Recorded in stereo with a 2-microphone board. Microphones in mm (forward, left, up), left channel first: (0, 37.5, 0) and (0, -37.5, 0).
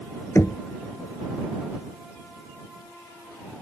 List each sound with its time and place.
0.3 s knocking: 40° left (ahead or behind)